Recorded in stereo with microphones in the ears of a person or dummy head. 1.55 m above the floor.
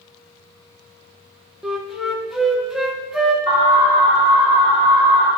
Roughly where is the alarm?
Left.